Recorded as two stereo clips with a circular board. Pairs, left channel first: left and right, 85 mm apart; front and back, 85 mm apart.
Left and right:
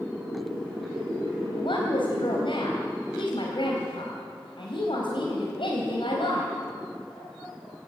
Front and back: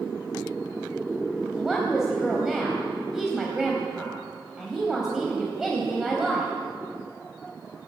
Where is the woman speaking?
95° left, 3.5 m.